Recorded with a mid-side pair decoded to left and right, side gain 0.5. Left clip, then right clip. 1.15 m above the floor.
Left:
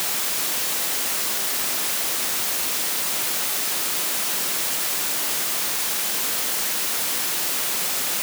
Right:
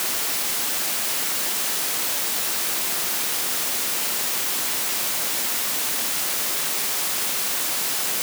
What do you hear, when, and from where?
Only background noise.